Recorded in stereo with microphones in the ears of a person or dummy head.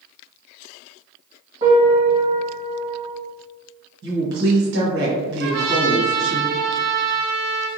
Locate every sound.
1.6 s a piano: 30° right (ahead or behind), 1.6 m
4.0 s a woman speaking: 65° right (ahead or behind), 1.0 m
5.4 s a trumpet: 60° right (ahead or behind), 0.7 m